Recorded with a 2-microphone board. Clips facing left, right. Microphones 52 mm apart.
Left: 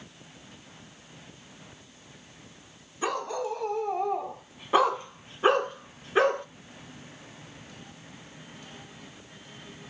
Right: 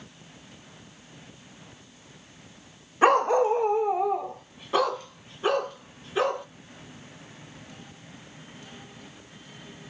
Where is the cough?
No cough in this recording.